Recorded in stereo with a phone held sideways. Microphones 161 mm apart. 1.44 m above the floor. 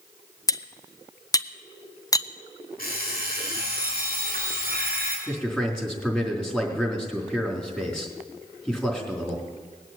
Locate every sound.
0.5 s cutlery clinking: 20° left (ahead or behind), 0.6 m
2.8 s an alarm clock: 65° left (ahead or behind), 7 m
5.3 s a man speaking: 5° left (ahead or behind), 4 m